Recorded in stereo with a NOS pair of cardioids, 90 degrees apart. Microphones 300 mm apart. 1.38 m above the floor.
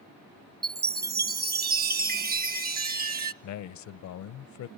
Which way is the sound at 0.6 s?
30° right.